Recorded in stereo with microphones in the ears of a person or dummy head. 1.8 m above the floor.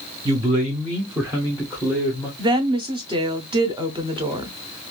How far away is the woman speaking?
About 0.6 m.